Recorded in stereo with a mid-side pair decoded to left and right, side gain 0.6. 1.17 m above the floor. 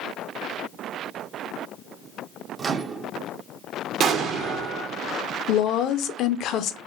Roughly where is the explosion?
Ahead right.